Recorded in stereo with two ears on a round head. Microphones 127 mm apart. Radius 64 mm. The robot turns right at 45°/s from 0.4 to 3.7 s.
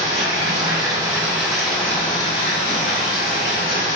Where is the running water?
50° right, 1.7 m; by 4.0 s 100° left, 1.7 m.